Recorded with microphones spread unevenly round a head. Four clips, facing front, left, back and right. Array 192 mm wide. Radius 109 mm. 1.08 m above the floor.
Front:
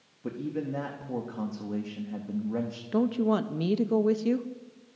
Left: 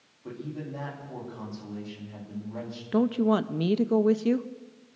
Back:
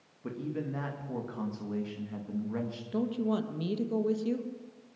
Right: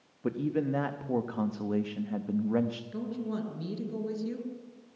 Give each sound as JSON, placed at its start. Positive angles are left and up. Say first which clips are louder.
{"t": 0.2, "sound": "a man speaking", "louder": "right 8 dB, front 3 dB", "azimuth_deg": -80, "distance_m": 1.8}
{"t": 2.9, "sound": "a woman speaking", "louder": "left 11 dB, front 5 dB", "azimuth_deg": 55, "distance_m": 1.2}